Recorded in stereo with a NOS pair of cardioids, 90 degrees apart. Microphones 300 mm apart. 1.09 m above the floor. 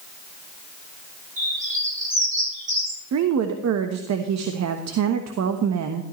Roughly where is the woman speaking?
Ahead right.